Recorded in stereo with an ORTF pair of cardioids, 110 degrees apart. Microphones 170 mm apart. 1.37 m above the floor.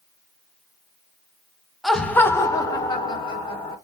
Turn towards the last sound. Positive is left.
turn(degrees=30)